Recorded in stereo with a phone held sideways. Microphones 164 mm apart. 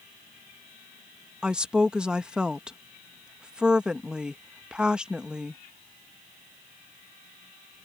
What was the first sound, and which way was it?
A woman speaking, 5° right (ahead or behind).